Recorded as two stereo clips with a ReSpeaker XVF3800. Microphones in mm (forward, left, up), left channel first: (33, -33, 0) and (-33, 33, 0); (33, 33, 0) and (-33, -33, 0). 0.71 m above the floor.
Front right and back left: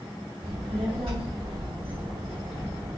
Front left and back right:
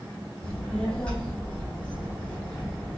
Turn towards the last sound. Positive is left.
turn(degrees=125)